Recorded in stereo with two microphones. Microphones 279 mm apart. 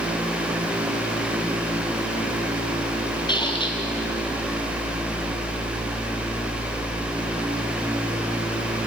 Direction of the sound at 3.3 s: 15° left (ahead or behind).